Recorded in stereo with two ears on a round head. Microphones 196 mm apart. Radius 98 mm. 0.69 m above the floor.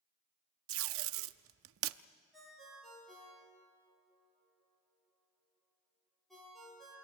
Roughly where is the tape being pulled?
Right.